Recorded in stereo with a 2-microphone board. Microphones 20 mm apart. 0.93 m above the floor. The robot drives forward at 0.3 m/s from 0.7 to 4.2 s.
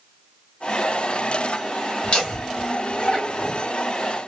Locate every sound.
2.0 s laughter: 55° left (ahead or behind), 1.4 m; by 3.6 s 45° left (ahead or behind), 1.7 m